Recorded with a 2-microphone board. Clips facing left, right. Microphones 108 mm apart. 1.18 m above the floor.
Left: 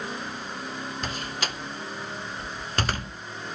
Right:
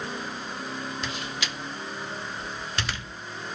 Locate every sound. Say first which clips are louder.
1.0 s a door slam: left 1 dB; 45° left (ahead or behind), 0.5 m